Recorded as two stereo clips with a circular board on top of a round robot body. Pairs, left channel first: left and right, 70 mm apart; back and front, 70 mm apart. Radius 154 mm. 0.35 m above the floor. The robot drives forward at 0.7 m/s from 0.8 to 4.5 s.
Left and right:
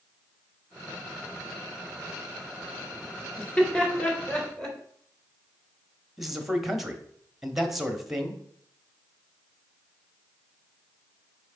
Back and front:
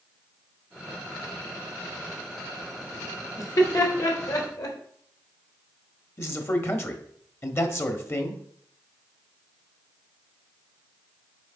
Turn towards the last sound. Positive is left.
turn(degrees=-175)